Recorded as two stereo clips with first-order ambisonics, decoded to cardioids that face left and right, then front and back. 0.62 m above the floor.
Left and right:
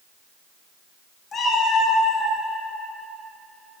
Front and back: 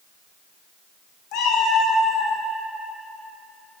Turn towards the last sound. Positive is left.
turn(degrees=60)